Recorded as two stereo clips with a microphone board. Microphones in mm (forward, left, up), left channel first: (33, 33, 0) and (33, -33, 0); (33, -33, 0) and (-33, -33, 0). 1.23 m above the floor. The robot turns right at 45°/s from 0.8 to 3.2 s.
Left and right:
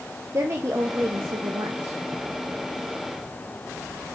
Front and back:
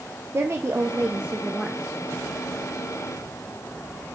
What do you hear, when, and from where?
0.3 s a woman speaking: 135° right, 0.7 m; by 1.8 s 90° right, 0.7 m